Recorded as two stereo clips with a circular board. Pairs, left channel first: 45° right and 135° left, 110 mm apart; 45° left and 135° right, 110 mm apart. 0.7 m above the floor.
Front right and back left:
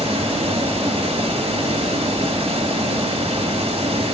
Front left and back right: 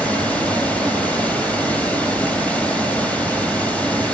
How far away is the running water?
About 3 m.